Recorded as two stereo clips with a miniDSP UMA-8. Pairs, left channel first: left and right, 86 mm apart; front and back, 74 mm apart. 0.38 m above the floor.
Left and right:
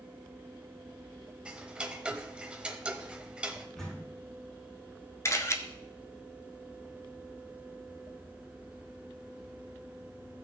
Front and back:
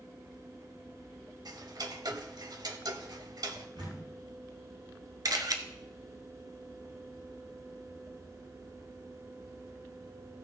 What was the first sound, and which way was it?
Ticking, 165° right.